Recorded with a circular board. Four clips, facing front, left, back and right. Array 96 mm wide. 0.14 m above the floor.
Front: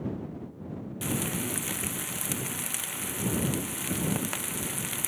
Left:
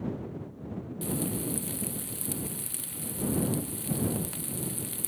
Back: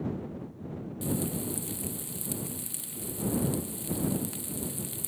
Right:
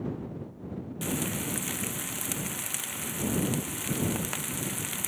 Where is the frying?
40° right.